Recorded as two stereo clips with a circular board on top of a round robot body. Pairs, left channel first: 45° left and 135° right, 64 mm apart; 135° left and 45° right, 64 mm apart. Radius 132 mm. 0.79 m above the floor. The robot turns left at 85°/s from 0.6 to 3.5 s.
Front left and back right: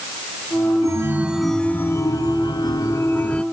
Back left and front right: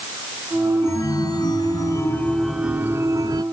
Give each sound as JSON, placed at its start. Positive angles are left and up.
{"t": 0.8, "sound": "a chime", "azimuth_deg": -170}